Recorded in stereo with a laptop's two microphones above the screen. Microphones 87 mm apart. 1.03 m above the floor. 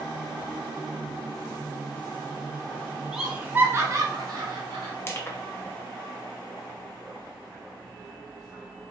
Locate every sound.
3.1 s laughter: 5° right (ahead or behind), 0.9 m; by 4.9 s 65° right (ahead or behind), 1.2 m
5.0 s crushing: 30° left (ahead or behind), 0.6 m